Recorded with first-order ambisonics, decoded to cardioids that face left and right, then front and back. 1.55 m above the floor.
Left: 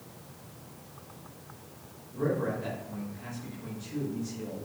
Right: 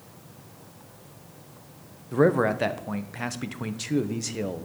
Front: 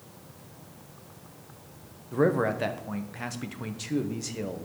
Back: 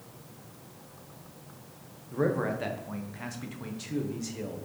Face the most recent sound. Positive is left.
turn(degrees=-75)